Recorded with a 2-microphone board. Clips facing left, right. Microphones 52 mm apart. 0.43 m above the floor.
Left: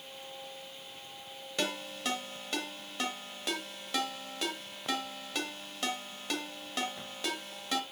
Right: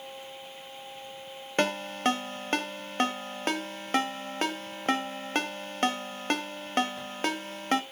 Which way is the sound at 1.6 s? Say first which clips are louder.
Right 8 dB; 45° right (ahead or behind).